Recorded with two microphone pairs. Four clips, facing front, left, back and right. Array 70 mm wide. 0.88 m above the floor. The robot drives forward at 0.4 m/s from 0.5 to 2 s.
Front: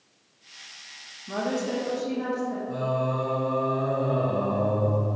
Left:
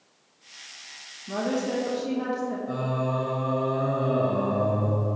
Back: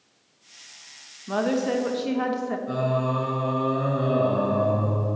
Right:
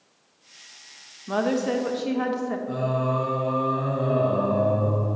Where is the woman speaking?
120° right, 0.8 m; by 2.6 s 135° right, 1.0 m.